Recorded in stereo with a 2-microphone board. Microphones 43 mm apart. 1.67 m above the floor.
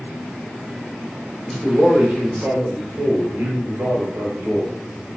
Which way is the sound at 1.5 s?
15° right (ahead or behind).